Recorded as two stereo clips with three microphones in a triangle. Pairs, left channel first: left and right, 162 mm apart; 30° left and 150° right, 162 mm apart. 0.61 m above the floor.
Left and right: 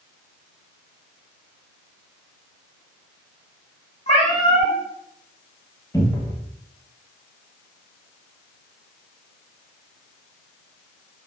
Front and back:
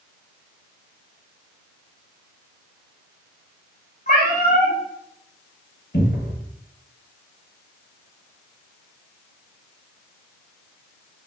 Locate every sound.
4.1 s a cat meowing: 50° left, 1.5 m
5.9 s a cupboard door: 20° left, 0.9 m